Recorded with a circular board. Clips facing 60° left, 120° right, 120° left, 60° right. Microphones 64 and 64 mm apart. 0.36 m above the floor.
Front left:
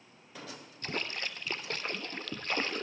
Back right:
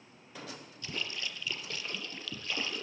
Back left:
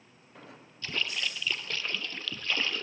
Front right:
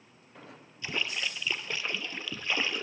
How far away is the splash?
About 1.5 m.